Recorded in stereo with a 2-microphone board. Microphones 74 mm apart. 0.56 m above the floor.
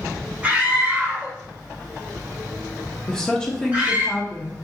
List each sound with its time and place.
0.4 s a scream: 25° right (ahead or behind), 1.1 m
3.1 s a woman speaking: 10° left (ahead or behind), 0.6 m